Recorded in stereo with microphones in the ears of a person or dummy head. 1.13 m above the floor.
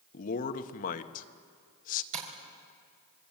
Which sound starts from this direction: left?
A man speaking, at 0.1 s.